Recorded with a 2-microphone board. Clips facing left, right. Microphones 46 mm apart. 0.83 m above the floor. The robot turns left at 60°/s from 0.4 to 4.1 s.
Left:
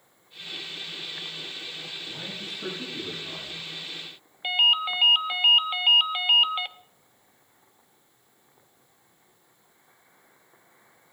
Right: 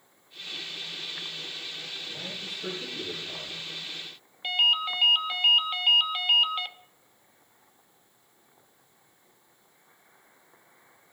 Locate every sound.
2.1 s a man speaking: 135° left, 7 m; by 3.6 s 45° left, 7 m
4.4 s a ringtone: 15° left (ahead or behind), 0.7 m